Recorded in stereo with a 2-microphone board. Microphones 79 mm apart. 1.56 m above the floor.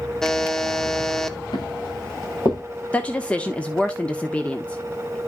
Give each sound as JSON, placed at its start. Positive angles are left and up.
{"t": 0.2, "sound": "a buzzer", "side_deg": 5, "distance_m": 0.7}
{"t": 1.5, "sound": "footsteps", "side_deg": 60, "distance_m": 8.0}
{"t": 2.9, "sound": "a woman speaking", "side_deg": 15, "distance_m": 0.7}